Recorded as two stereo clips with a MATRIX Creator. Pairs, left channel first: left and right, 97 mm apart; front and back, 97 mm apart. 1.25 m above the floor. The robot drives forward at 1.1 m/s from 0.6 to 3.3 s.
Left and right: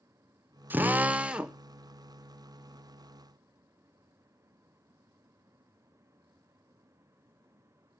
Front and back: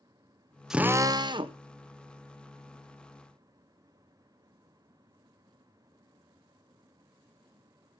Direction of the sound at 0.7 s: 105° right.